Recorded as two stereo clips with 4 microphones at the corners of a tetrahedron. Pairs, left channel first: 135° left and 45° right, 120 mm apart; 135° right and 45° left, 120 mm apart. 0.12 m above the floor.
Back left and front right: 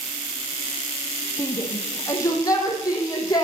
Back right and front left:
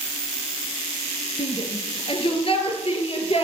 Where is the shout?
165° right, 2.5 m; by 3.5 s 170° right, 4 m.